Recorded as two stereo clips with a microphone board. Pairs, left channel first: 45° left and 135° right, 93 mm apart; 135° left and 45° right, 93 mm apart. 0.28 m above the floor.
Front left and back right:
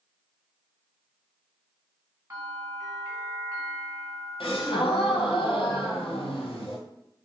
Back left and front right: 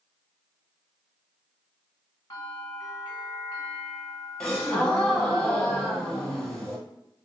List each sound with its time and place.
2.3 s a bell: 170° left, 1.3 m
4.4 s a gasp: 55° left, 1.0 m